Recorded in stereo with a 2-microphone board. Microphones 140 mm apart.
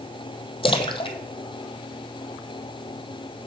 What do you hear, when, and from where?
0.6 s a splash: 40° left (ahead or behind), 0.7 m